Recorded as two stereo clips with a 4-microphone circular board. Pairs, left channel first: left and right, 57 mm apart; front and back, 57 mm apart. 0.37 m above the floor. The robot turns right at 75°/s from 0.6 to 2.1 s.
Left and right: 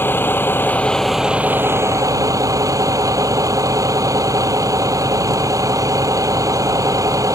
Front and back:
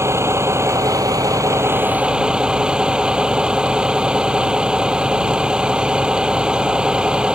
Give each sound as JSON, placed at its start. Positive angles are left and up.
{"t": 0.0, "sound": "a vehicle", "azimuth_deg": 140}